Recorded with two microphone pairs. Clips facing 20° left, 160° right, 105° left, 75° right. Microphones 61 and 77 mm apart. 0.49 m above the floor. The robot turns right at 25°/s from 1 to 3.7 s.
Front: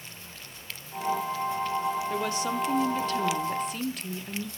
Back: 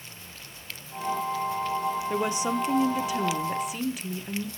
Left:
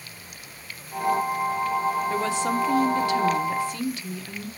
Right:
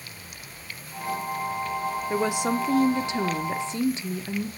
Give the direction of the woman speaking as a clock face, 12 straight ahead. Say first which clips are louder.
Back 2 dB, even; 4 o'clock.